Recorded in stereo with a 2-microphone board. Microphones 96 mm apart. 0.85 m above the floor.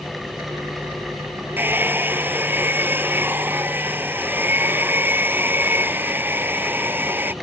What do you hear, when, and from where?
1.6 s a hair dryer: 20° right (ahead or behind)